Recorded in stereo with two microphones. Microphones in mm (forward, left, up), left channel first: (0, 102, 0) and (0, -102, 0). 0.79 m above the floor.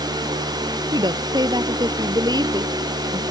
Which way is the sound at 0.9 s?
20° right (ahead or behind).